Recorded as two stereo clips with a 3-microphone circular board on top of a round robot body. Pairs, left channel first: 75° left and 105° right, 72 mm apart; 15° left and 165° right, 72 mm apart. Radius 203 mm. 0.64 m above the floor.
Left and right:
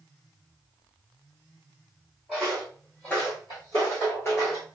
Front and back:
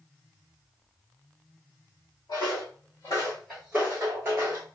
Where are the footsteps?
15° right, 0.8 m; by 4.7 s 145° left, 0.9 m.